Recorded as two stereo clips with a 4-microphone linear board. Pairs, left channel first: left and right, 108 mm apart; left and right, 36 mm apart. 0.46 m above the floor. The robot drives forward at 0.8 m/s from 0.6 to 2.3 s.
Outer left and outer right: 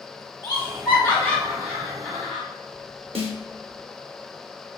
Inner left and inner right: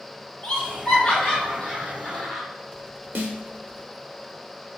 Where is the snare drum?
65° right (ahead or behind), 0.6 m.